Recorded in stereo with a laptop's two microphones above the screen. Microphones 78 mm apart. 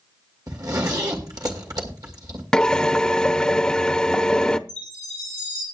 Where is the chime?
80° right, 7.5 m.